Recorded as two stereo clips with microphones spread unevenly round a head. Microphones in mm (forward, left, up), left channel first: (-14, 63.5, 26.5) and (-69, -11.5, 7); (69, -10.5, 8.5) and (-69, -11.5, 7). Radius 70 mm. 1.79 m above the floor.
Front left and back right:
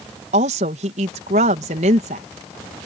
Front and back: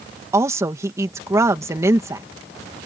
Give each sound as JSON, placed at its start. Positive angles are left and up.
{"t": 0.3, "sound": "a woman speaking", "azimuth_deg": -110}